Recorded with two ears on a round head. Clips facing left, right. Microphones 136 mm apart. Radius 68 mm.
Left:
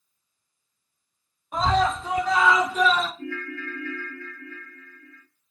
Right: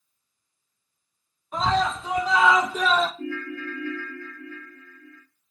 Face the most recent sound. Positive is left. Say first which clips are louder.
# right 2 dB
turn(degrees=-20)  # may be behind; listen again after turning